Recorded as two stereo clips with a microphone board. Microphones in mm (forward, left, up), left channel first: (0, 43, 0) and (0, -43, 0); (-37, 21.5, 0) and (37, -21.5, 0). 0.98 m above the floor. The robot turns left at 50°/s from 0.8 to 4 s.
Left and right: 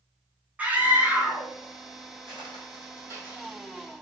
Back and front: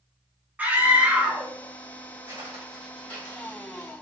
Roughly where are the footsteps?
Right.